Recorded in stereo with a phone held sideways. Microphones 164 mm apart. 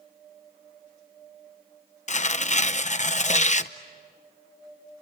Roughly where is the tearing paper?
Left.